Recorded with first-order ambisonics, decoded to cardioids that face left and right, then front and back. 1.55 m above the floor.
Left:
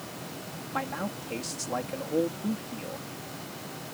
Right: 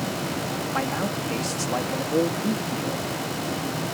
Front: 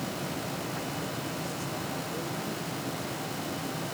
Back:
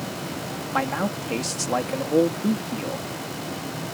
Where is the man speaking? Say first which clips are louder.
Right 4 dB, back 10 dB; 165° right.